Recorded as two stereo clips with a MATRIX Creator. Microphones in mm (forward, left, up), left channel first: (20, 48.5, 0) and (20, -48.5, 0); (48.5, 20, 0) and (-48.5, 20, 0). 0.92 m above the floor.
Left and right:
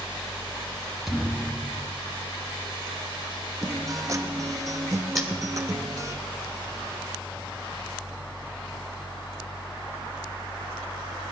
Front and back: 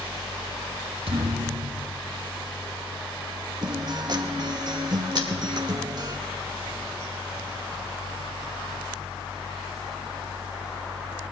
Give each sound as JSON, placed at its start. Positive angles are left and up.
{"t": 1.1, "sound": "a thud", "azimuth_deg": -175, "distance_m": 1.9}
{"t": 3.6, "sound": "a guitar", "azimuth_deg": -140, "distance_m": 0.9}
{"t": 5.2, "sound": "cutlery clinking", "azimuth_deg": -5, "distance_m": 2.5}